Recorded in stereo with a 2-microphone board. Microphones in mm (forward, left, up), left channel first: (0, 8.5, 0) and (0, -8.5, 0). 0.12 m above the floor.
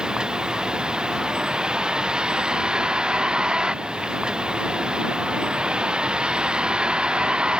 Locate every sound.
0.0 s a vehicle: 55° right (ahead or behind); by 7.6 s 65° right (ahead or behind)